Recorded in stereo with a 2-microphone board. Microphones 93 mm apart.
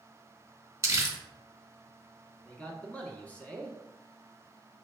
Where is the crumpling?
30° right (ahead or behind), 1.1 m.